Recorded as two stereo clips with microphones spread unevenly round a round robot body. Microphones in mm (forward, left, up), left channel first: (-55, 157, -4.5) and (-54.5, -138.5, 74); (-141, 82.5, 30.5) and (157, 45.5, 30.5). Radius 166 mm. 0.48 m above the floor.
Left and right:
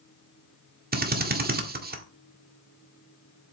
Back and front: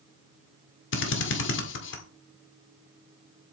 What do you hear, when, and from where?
0.9 s a drill: 155° right, 1.8 m